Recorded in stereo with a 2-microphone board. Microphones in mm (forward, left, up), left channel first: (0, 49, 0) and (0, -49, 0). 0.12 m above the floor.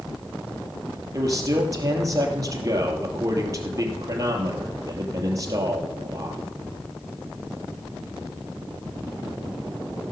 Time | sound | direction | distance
1.1 | a man speaking | 35° right (ahead or behind) | 2.5 m